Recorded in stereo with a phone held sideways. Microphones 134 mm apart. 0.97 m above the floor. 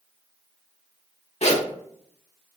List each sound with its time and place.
1.4 s a zipper: 55° left (ahead or behind), 0.7 m